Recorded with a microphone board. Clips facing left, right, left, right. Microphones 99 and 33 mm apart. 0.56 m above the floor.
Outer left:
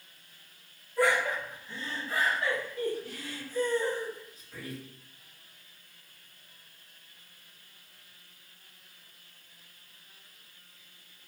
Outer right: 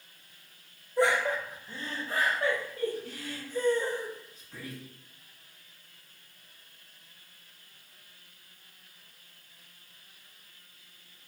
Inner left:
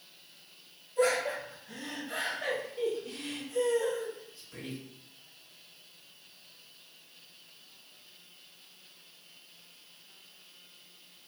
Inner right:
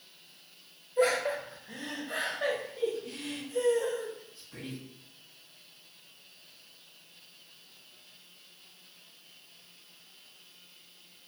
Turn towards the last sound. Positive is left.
turn(degrees=-35)  # may be behind; listen again after turning